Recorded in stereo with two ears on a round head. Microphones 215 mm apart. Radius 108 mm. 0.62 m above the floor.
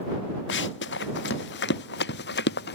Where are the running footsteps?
50° left (ahead or behind); by 2.8 s 45° left (ahead or behind).